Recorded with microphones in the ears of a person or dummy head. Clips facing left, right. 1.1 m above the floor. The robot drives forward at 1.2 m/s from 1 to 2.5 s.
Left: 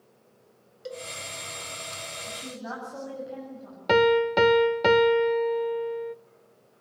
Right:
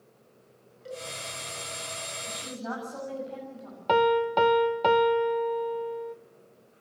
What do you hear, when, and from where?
0.8 s a cowbell: 55° left (ahead or behind), 5.5 m; by 1.1 s 60° left (ahead or behind), 5.5 m
2.3 s a woman speaking: 10° left (ahead or behind), 7.5 m
3.9 s a piano: 25° left (ahead or behind), 0.5 m